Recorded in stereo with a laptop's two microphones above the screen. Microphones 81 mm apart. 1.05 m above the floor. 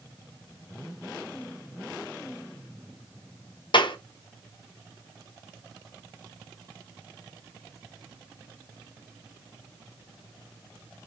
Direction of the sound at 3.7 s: 70° left (ahead or behind).